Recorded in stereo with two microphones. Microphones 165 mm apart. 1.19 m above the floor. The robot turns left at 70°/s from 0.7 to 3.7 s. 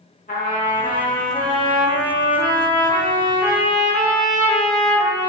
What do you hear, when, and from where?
0.3 s a trumpet: 60° left, 0.9 m; by 5.3 s 150° right, 0.9 m